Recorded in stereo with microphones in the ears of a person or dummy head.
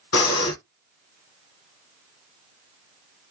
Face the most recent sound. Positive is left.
turn(degrees=75)  # may be behind; listen again after turning